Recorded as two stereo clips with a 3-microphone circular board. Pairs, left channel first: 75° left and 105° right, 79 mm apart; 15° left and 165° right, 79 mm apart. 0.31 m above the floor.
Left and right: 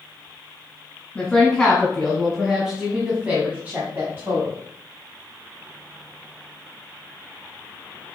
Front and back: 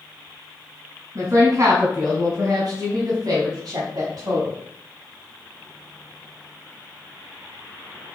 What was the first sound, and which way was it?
A woman speaking, 155° left.